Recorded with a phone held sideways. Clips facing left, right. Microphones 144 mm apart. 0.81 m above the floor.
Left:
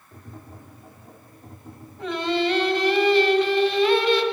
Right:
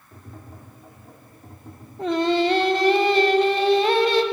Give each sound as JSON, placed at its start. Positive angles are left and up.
{"t": 0.1, "sound": "tapping", "side_deg": 0, "distance_m": 1.9}
{"t": 2.0, "sound": "singing", "side_deg": -45, "distance_m": 0.9}